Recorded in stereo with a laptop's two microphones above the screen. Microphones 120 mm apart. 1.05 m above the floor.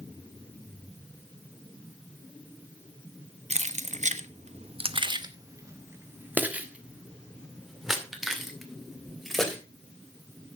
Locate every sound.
3.5 s keys jangling: 65° right (ahead or behind), 0.8 m; by 9.6 s centre (ahead or behind), 3.5 m